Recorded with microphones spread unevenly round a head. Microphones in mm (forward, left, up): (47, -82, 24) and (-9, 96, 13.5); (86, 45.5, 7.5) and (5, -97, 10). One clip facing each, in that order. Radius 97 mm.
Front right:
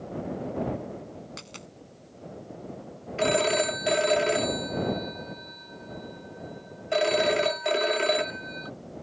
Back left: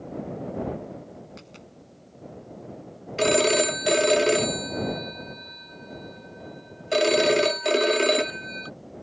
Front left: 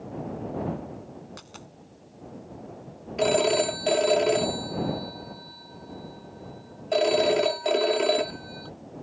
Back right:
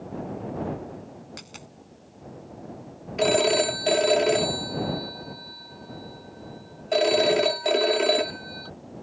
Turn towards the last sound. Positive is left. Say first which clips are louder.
# back left 3 dB, back right 1 dB
turn(degrees=155)